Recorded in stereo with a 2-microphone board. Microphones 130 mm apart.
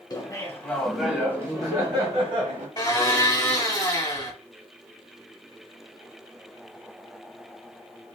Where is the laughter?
30° left (ahead or behind), 1.4 m; by 2.7 s 55° right (ahead or behind), 1.8 m.